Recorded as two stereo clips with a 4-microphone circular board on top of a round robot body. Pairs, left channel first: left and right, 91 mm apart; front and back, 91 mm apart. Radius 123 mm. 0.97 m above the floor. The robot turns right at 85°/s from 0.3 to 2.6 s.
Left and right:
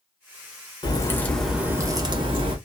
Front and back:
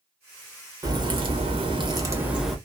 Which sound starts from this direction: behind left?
A crack, at 0.8 s.